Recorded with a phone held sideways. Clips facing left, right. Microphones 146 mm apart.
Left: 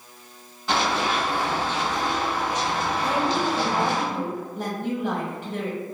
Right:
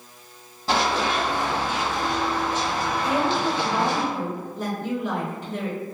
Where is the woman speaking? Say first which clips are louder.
Right 1 dB; 55° left (ahead or behind), 1.5 m.